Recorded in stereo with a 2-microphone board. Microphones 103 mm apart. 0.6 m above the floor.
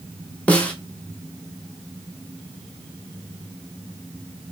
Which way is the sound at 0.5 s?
15° left (ahead or behind).